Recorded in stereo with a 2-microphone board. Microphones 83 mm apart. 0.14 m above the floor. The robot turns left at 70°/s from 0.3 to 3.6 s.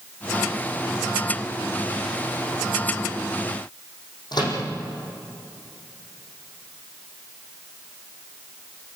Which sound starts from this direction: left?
A microwave, at 4.3 s.